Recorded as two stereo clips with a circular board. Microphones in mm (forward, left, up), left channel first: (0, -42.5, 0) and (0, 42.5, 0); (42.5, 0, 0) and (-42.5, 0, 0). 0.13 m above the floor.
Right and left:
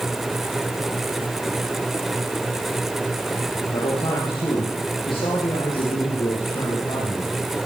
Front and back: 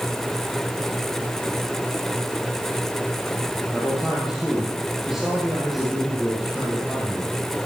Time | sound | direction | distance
3.7 | a man speaking | 95° right | 4 m